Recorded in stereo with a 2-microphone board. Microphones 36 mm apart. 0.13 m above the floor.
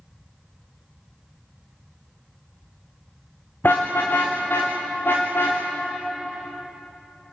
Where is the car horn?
70° left (ahead or behind), 6 m; by 5.6 s 85° left, 8 m.